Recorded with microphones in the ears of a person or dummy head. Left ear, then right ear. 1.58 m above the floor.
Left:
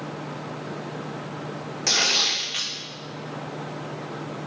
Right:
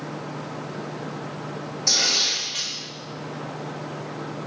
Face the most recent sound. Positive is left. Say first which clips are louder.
# even
turn(degrees=45)  # may be behind; listen again after turning